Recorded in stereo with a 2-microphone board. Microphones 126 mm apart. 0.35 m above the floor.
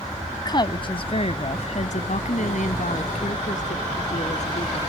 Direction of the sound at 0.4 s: 30° left (ahead or behind).